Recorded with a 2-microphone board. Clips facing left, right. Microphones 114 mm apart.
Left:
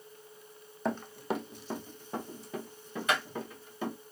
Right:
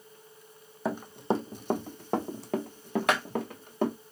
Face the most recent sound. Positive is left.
turn(degrees=-60)  # may be behind; listen again after turning